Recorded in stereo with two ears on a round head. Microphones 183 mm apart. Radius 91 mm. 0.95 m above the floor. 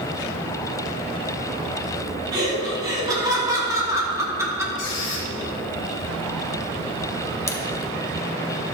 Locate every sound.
2.3 s laughter: 20° right (ahead or behind), 3 m; by 4.7 s 15° right (ahead or behind), 1.7 m
4.8 s a squeak: 60° left (ahead or behind), 2.5 m
7.5 s a camera shutter: 15° left (ahead or behind), 0.8 m